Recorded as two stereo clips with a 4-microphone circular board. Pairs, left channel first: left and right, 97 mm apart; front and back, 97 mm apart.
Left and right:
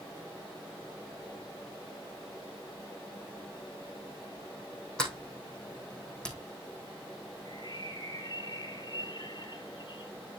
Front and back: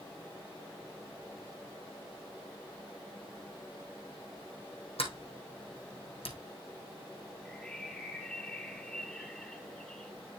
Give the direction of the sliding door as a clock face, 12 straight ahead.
12 o'clock.